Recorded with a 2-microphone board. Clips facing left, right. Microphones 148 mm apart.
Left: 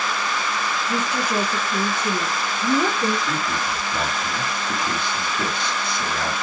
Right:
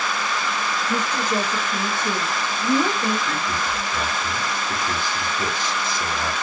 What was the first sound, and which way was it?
A woman speaking, centre (ahead or behind).